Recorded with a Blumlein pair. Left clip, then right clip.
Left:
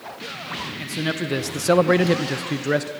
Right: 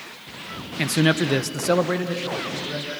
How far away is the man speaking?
About 1.1 m.